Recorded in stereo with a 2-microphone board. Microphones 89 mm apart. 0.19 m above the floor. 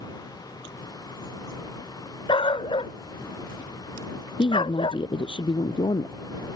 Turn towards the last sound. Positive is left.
turn(degrees=60)  # may be behind; listen again after turning